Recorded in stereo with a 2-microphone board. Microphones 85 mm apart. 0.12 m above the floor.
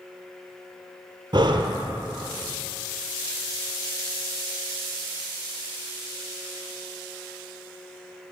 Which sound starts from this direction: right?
Breathing, at 1.3 s.